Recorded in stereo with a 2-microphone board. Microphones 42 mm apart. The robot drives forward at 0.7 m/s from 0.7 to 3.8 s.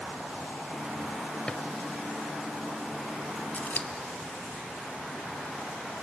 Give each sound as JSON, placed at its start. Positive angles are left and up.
{"t": 1.5, "sound": "a drawer", "side_deg": 25, "distance_m": 1.1}
{"t": 3.5, "sound": "scissors", "side_deg": 35, "distance_m": 1.5}